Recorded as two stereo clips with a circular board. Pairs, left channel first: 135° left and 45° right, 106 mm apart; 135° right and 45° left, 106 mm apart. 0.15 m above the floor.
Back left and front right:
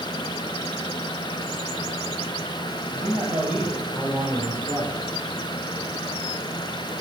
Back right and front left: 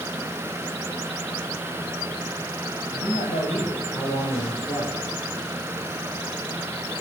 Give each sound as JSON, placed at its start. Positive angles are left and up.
{"t": 2.9, "sound": "a man speaking", "azimuth_deg": -120, "distance_m": 5.0}